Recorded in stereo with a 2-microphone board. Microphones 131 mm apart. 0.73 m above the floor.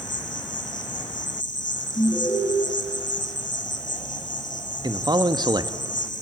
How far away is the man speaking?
About 0.9 m.